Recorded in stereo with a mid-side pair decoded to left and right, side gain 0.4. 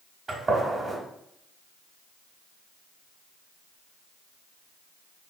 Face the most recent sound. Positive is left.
turn(degrees=-40)